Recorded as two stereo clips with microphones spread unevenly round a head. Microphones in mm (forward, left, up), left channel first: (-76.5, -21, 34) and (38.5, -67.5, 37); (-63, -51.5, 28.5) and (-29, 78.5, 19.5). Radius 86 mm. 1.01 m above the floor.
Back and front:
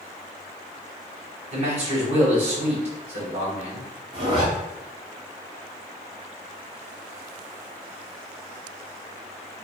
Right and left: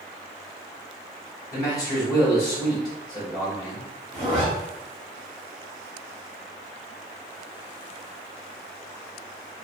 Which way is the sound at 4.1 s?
15° right.